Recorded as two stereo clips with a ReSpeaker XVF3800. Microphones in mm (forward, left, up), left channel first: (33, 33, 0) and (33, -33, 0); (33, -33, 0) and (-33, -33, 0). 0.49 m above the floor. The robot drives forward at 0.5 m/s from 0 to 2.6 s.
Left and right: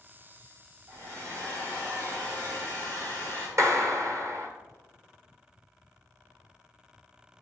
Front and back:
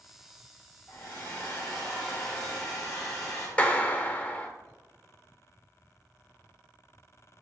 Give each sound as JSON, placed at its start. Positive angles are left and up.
{"t": 0.9, "sound": "a hair dryer", "azimuth_deg": -65, "distance_m": 3.5}
{"t": 3.6, "sound": "a clap", "azimuth_deg": -65, "distance_m": 1.0}